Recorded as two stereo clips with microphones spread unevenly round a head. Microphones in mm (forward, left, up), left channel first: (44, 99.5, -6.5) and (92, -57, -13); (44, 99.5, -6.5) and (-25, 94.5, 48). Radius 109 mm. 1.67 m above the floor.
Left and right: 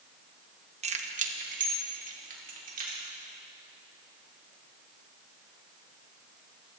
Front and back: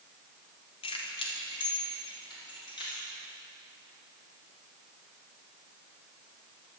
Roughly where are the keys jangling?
Ahead right.